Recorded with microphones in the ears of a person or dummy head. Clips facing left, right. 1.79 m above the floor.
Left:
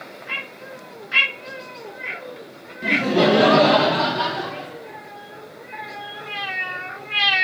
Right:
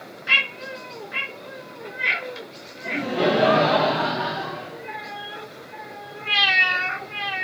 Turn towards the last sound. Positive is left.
turn(degrees=50)  # may be behind; listen again after turning